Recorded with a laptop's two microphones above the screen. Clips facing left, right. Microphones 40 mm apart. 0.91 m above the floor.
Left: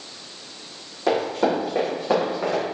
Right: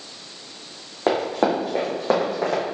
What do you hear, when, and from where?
1.1 s running footsteps: 40° right (ahead or behind), 1.9 m; by 2.6 s 65° right (ahead or behind), 2 m